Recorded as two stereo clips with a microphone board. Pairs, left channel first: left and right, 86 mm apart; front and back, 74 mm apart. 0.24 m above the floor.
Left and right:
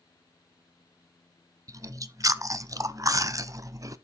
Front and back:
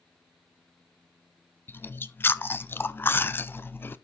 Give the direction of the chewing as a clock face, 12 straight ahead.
2 o'clock.